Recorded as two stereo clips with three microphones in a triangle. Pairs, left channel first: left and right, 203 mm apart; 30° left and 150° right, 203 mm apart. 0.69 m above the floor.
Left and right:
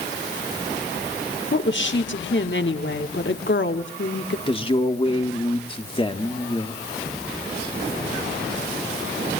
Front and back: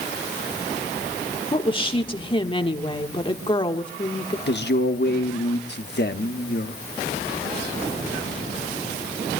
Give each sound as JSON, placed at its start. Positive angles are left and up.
{"t": 1.5, "sound": "a woman speaking", "azimuth_deg": 90, "distance_m": 1.5}
{"t": 4.5, "sound": "a man speaking", "azimuth_deg": 30, "distance_m": 1.2}